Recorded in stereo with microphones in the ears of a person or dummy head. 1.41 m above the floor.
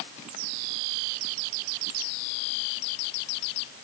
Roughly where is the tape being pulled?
No tape being pulled in this recording.